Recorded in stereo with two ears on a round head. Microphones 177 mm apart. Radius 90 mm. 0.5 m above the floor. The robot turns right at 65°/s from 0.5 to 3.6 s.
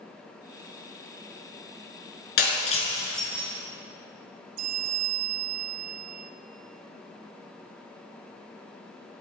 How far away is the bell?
About 1.5 m.